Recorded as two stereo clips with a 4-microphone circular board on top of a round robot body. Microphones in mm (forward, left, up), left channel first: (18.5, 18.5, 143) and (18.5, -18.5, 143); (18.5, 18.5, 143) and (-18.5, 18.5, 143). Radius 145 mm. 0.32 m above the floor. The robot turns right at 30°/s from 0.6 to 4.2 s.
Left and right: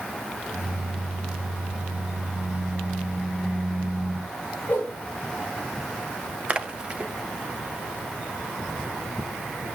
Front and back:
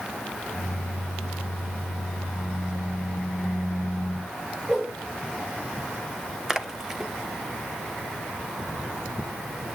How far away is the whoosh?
About 6 m.